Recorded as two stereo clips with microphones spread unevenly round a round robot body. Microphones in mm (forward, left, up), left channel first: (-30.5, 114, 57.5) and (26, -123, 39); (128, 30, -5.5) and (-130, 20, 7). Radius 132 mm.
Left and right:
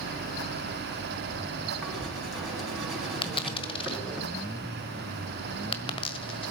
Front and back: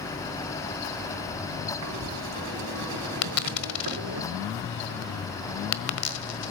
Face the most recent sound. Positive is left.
turn(degrees=35)